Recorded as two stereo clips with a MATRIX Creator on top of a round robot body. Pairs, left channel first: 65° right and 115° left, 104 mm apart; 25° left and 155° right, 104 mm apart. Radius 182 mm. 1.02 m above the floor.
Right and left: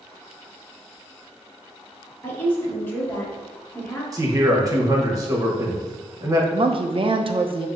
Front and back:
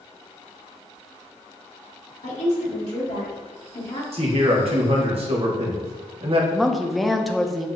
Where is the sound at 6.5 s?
110° left, 0.7 m.